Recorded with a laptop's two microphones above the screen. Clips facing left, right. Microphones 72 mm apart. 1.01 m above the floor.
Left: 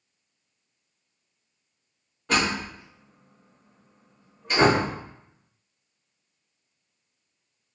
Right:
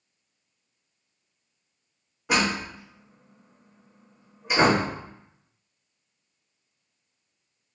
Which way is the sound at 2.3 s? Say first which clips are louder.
Even; 10° right (ahead or behind).